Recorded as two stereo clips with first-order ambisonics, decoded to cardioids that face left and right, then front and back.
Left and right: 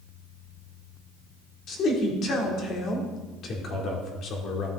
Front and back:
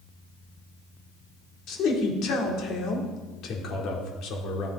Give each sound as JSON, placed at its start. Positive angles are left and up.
{"t": 1.7, "sound": "a man speaking", "azimuth_deg": 40, "distance_m": 2.0}